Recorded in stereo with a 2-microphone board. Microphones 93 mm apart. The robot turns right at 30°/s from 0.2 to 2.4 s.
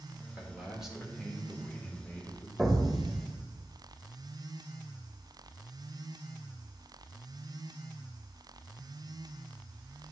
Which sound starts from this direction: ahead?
A man speaking, at 0.3 s.